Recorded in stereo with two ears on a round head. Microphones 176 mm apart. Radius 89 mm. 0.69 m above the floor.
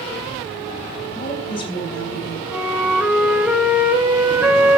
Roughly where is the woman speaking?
Left.